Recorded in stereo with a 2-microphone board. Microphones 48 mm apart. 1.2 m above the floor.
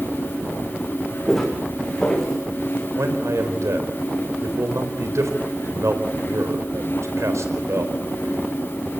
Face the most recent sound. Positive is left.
turn(degrees=-90)